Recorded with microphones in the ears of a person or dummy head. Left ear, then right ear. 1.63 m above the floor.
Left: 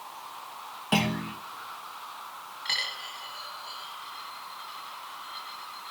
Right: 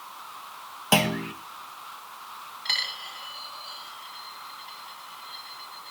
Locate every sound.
0.9 s a clunk: 25° right (ahead or behind), 1.1 m
2.6 s a dropped coin: 5° right (ahead or behind), 2 m